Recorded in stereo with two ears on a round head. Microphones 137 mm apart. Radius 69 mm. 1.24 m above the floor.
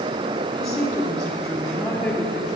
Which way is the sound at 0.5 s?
20° left (ahead or behind).